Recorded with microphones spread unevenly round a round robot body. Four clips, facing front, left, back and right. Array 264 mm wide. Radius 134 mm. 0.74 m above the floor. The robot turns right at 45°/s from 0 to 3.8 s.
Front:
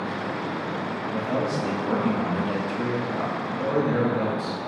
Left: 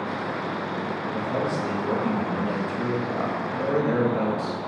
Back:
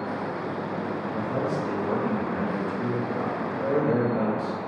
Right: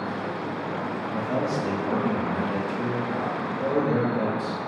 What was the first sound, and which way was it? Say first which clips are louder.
A man speaking: right 1 dB, front 3 dB; 30° right.